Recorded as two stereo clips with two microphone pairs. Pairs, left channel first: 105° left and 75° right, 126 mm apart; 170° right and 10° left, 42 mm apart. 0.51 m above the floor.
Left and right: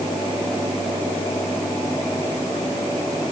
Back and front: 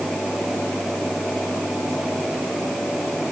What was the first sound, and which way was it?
Only background noise.